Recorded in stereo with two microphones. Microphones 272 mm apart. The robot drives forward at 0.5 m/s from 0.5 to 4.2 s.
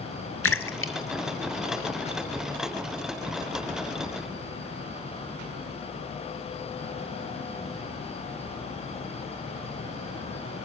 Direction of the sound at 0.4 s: 55° left (ahead or behind).